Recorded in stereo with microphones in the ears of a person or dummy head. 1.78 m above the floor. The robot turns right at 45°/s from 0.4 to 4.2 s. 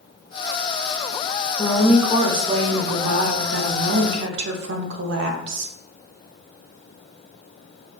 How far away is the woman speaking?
About 0.6 m.